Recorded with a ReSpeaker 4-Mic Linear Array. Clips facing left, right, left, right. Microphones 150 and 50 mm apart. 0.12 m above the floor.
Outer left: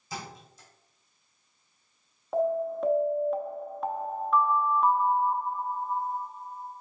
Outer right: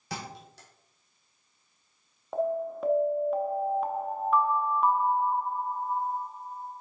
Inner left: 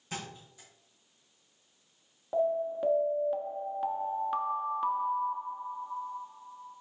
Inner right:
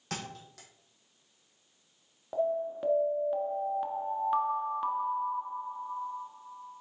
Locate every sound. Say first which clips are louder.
0.1 s a thud: outer right 1 dB, inner right 1 dB; 70° right (ahead or behind), 2 m
2.3 s an alarm: outer left 2 dB, inner left 2 dB; centre (ahead or behind), 1.0 m